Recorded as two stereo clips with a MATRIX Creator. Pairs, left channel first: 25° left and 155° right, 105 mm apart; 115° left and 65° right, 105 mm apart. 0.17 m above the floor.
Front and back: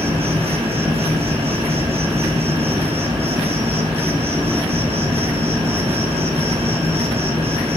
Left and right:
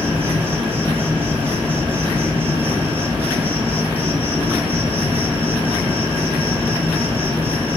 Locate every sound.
0.0 s an insect: 140° right, 6.5 m